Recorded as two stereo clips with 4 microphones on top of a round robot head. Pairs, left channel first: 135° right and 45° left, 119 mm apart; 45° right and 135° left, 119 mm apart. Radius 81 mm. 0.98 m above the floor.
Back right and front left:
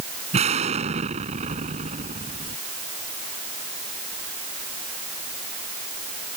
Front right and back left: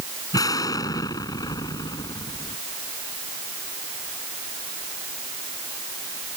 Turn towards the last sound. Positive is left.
turn(degrees=15)